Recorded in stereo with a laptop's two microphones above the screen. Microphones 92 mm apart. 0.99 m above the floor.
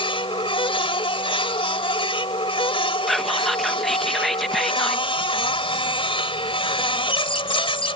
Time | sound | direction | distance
0.0 | a machine running | 75° left (ahead or behind) | ?
3.1 | whispering | centre (ahead or behind) | ?